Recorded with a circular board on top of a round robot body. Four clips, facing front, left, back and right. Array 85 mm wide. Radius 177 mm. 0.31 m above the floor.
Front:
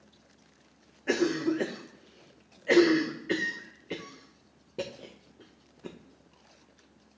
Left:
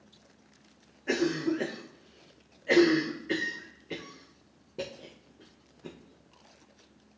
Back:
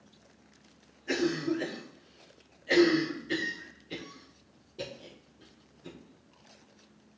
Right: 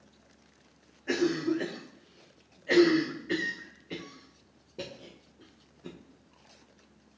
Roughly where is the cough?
Ahead.